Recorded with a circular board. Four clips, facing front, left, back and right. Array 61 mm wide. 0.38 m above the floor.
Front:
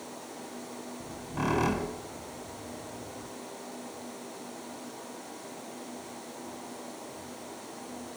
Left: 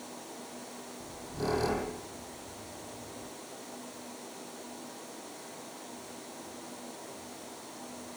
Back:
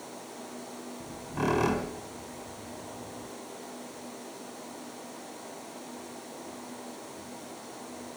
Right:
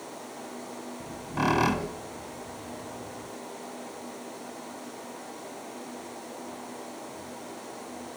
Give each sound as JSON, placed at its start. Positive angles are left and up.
{"t": 1.0, "sound": "a squeak", "azimuth_deg": -90, "distance_m": 1.6}